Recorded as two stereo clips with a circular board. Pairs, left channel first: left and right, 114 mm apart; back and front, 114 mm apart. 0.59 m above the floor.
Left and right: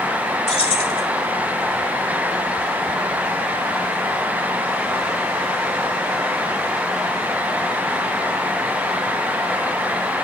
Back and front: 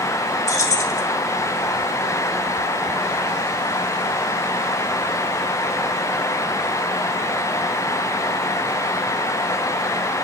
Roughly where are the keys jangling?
Behind left.